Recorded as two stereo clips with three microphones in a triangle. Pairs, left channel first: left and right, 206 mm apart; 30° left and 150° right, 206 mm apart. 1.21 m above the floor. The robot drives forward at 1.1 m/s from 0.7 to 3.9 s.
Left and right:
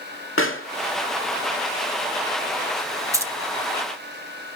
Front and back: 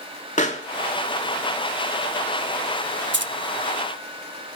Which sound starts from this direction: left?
A pop, at 0.4 s.